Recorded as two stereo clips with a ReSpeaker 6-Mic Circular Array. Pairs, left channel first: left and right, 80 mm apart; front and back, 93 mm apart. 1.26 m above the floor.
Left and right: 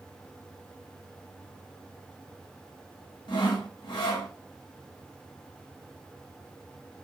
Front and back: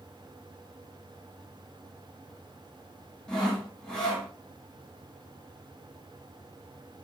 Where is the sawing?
80° left, 1.5 m.